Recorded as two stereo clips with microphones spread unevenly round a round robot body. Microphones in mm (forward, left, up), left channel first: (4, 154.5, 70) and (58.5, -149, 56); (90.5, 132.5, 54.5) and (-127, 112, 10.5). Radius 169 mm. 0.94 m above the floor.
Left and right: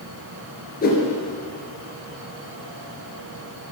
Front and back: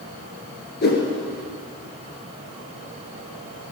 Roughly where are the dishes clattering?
No dishes clattering in this recording.